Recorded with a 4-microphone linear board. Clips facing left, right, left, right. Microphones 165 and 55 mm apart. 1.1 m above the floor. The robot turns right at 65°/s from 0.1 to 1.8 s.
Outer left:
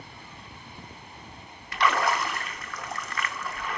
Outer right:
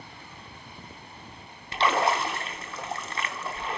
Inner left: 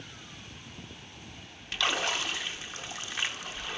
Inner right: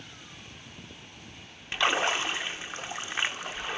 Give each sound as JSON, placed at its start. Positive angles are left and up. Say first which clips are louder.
{"t": 1.7, "sound": "a splash", "louder": "outer right 1 dB, inner right 4 dB", "side_deg": -30, "distance_m": 0.7}